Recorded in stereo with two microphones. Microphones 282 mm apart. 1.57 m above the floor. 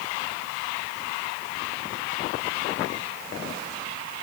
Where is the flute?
I don't hear a flute.